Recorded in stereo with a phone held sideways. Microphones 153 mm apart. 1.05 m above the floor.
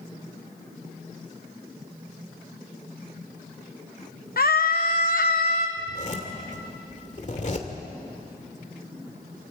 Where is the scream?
70° left (ahead or behind), 0.7 m.